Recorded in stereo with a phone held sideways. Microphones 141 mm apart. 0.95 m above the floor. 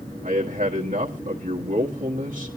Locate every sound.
0.2 s a man speaking: 65° right (ahead or behind), 1.6 m